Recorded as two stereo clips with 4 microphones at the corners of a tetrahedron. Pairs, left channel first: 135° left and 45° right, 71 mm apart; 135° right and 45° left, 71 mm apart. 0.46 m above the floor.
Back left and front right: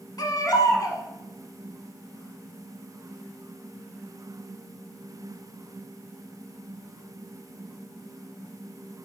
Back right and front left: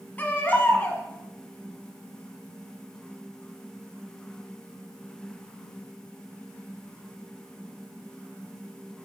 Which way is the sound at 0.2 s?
160° left.